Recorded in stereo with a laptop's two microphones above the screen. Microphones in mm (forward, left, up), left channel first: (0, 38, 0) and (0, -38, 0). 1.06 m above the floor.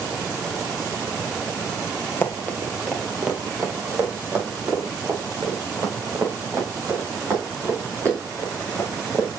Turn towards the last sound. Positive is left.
turn(degrees=-40)  # may be behind; listen again after turning